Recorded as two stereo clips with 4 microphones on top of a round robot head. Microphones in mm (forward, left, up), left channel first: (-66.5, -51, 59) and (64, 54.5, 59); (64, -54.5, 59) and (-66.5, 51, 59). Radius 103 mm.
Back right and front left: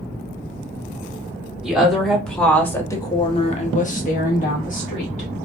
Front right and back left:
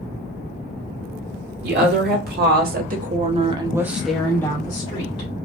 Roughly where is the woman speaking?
Behind left.